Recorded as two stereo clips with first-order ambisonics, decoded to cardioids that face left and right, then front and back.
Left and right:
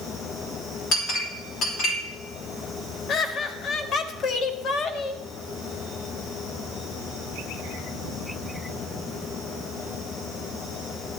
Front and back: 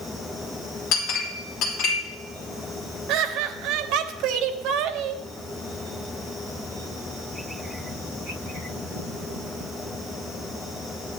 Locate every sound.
0.9 s a clink: 35° left, 3 m
3.1 s laughter: 145° left, 1.1 m